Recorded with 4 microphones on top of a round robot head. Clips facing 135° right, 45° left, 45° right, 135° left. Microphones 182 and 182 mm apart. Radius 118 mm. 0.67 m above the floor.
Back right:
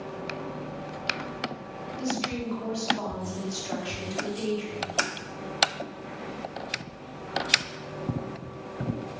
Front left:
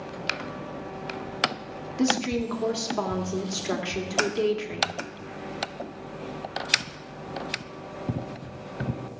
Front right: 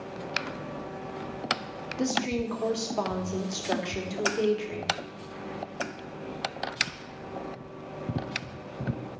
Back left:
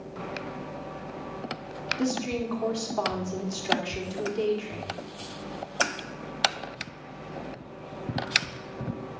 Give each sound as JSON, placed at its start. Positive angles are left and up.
{"t": 2.0, "sound": "a woman speaking", "azimuth_deg": 30, "distance_m": 2.5}